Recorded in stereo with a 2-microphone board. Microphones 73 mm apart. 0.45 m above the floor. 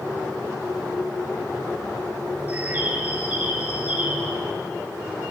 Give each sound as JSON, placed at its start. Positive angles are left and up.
{"t": 2.5, "sound": "a bird", "side_deg": -25, "distance_m": 1.0}